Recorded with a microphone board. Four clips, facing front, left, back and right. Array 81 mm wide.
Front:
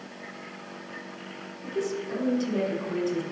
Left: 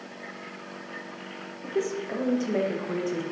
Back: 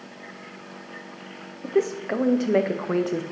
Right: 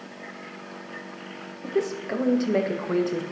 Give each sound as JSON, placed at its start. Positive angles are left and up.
{"t": 1.6, "sound": "a woman speaking", "azimuth_deg": -160, "distance_m": 0.9}